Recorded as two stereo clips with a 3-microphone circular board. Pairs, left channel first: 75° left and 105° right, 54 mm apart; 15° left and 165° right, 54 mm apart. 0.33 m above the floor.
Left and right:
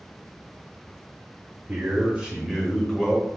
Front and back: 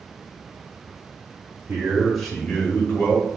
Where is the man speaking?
135° right, 1.2 m; by 3.2 s 5° right, 1.7 m.